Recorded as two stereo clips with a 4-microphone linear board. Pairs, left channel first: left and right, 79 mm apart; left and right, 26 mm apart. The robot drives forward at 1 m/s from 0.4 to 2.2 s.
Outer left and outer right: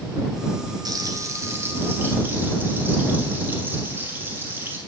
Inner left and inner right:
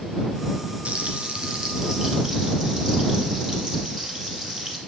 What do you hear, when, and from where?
0.8 s frying: 55° right (ahead or behind), 1.1 m; by 4.8 s 25° right (ahead or behind), 2 m